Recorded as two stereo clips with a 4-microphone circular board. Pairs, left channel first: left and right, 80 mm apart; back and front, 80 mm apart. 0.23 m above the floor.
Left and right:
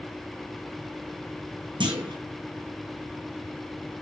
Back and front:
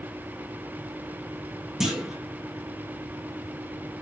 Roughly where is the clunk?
Right.